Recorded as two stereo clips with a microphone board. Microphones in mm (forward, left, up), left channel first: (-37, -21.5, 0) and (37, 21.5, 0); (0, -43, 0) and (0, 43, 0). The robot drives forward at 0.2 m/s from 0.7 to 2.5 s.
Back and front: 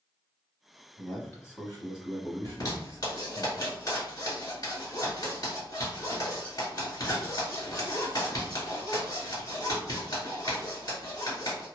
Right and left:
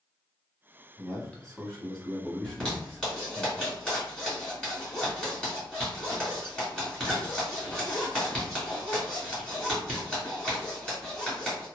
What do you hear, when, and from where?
1.0 s a man speaking: 155° right, 1.0 m; by 3.5 s 165° right, 1.2 m
2.5 s a zipper: 175° right, 1.7 m